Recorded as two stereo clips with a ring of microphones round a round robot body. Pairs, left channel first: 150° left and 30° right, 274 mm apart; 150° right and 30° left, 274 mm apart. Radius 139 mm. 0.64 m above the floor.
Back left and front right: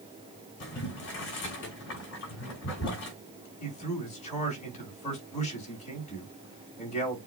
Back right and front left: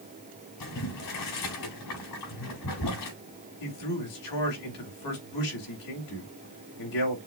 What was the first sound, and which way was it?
Boiling, 160° right.